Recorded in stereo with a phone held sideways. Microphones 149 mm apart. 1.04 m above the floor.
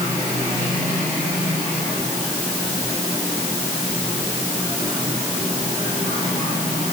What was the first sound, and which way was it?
Only background noise.